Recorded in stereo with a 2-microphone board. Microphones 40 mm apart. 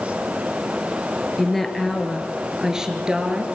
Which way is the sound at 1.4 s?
5° left (ahead or behind).